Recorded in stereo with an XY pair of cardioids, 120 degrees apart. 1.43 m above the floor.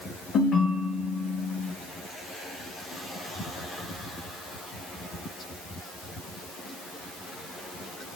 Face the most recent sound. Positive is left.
turn(degrees=55)